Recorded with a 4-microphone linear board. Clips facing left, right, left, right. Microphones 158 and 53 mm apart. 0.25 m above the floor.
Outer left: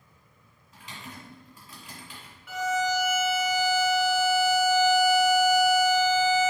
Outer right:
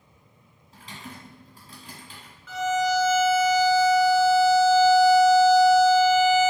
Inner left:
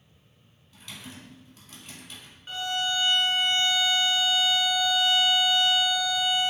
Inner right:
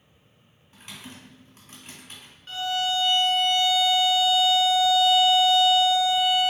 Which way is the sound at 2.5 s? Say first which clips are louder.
Outer right 3 dB, inner right 3 dB; 15° left (ahead or behind).